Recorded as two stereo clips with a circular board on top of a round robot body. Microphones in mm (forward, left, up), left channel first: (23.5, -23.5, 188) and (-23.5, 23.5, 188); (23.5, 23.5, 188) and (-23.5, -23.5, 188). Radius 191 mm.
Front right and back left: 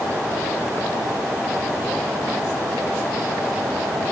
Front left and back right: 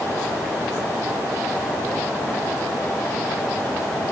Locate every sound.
Only background noise.